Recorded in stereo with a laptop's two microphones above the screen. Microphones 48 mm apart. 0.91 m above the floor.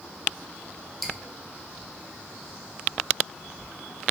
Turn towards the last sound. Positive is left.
turn(degrees=0)  # may be behind; listen again after turning